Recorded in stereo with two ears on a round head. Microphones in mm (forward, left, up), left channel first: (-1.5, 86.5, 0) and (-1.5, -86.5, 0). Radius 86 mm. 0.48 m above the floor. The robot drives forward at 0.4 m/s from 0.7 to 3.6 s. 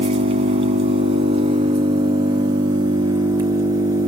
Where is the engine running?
30° right (ahead or behind), 1.9 m; by 4.1 s 20° right (ahead or behind), 3 m.